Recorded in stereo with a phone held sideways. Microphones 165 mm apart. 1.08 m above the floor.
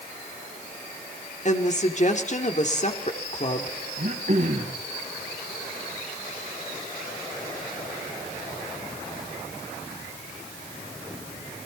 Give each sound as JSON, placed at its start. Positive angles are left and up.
{"t": 1.4, "sound": "a woman speaking", "side_deg": 45, "distance_m": 3.0}
{"t": 4.0, "sound": "throat clearing", "side_deg": -60, "distance_m": 4.0}